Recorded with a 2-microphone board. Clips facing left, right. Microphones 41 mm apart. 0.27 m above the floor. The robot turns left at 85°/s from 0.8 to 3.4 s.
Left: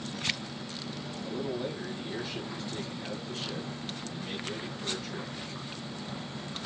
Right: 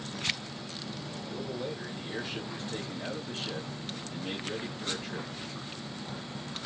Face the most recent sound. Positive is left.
turn(degrees=-125)